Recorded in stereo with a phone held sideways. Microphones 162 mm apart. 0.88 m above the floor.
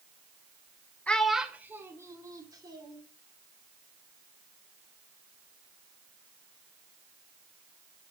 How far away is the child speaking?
About 0.9 m.